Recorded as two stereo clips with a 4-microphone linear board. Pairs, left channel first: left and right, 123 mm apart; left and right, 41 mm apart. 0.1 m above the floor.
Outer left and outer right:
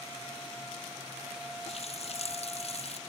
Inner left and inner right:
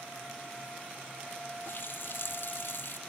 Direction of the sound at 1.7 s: 60° left (ahead or behind).